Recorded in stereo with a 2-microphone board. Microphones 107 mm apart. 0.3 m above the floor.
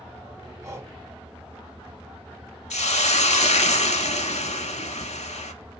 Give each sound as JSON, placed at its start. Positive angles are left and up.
{"t": 0.6, "sound": "breathing", "side_deg": -25, "distance_m": 0.7}
{"t": 2.7, "sound": "a hiss", "side_deg": 90, "distance_m": 0.6}